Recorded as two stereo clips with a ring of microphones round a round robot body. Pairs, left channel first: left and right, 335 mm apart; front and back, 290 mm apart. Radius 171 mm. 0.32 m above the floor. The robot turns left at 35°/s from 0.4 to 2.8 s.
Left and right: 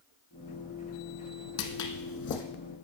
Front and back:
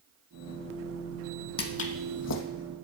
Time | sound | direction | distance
1.6 | footsteps | 55° left | 1.0 m